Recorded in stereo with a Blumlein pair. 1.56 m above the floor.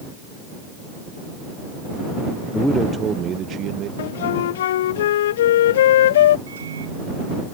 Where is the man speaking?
10° left; by 3.9 s 35° right.